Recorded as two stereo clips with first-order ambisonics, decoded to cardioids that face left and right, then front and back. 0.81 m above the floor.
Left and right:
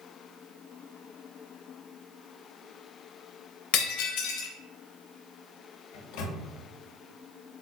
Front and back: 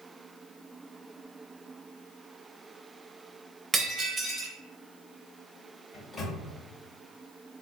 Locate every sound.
3.7 s breaking glass: 105° left, 0.6 m
5.9 s a microwave: 70° left, 0.6 m